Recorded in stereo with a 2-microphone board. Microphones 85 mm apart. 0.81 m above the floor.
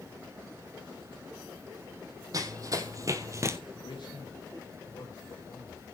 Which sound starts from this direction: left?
A man speaking, at 3.8 s.